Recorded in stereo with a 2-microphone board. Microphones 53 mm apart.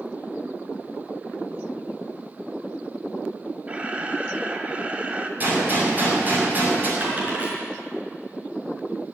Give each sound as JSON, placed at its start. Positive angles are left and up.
{"t": 3.7, "sound": "a camera shutter", "side_deg": -25, "distance_m": 1.4}
{"t": 5.4, "sound": "a gunshot", "side_deg": -35, "distance_m": 6.5}
{"t": 7.0, "sound": "a dropped coin", "side_deg": -30, "distance_m": 5.5}